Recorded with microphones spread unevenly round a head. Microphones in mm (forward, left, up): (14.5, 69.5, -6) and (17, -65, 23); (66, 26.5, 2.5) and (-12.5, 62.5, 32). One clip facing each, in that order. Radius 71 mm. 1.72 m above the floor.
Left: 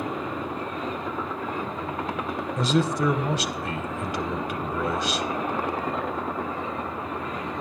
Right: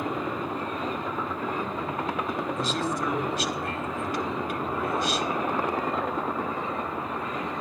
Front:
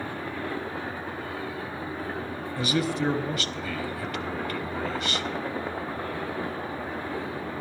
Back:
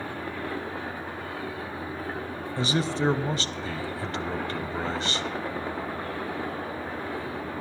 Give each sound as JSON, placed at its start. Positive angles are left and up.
{"t": 2.6, "sound": "a man speaking", "azimuth_deg": 125, "distance_m": 0.7}